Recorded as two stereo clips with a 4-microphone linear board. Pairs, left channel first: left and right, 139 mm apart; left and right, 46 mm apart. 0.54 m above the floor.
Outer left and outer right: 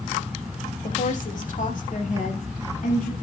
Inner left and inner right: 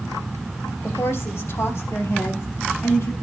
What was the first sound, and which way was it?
A woman speaking, 65° left (ahead or behind).